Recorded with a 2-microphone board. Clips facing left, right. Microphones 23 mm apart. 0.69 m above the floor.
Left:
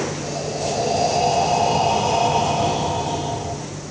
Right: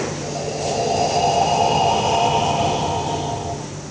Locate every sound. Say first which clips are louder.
0.2 s breathing: right 1 dB; centre (ahead or behind), 2.5 m